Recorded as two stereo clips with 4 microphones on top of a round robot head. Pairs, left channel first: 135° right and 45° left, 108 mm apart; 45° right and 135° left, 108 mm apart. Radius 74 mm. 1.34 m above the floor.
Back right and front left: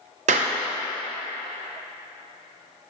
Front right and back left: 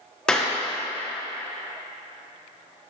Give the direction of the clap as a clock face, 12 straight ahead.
11 o'clock.